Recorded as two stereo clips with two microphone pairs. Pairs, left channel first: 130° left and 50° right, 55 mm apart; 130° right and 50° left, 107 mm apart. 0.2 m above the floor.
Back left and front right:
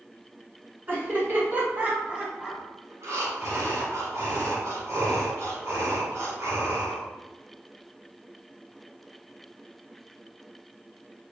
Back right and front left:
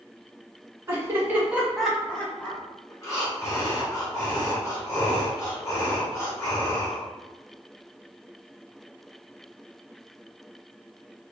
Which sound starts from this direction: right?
Breathing, at 2.9 s.